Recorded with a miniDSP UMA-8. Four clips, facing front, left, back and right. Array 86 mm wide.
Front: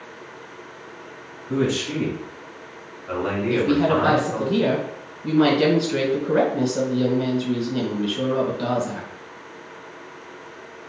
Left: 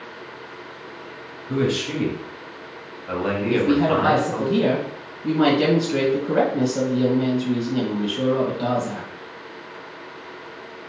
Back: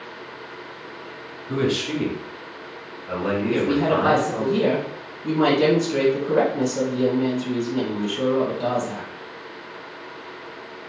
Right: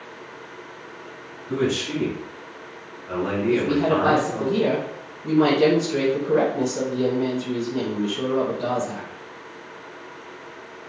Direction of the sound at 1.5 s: 160° left.